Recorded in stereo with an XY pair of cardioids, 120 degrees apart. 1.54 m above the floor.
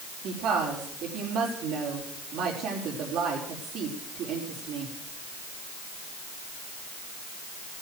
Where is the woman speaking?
65° right, 4.5 m.